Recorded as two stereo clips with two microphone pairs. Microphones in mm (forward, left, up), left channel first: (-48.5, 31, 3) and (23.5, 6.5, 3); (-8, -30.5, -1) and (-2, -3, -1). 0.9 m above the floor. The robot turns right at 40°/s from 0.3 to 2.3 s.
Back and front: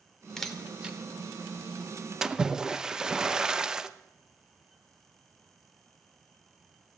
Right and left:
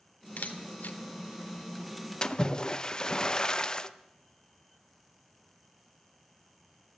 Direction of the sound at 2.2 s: 95° right.